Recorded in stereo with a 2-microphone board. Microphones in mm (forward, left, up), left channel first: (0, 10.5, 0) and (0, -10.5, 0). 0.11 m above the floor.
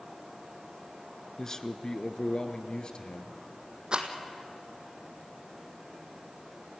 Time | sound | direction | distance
1.4 | a man speaking | 20° left (ahead or behind) | 1.2 m
3.9 | a rattle | 40° right (ahead or behind) | 1.9 m